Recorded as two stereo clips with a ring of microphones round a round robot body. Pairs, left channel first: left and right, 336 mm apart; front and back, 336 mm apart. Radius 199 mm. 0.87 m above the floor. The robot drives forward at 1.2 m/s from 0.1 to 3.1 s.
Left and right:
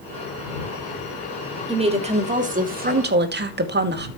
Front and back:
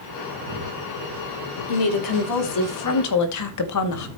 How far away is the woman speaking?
About 3.5 m.